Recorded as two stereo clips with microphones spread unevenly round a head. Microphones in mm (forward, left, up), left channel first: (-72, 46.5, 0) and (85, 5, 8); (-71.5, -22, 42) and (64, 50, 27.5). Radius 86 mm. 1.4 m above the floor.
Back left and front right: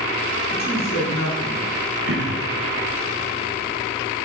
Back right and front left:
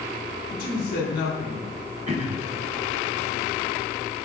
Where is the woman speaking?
Straight behind, 3.5 m.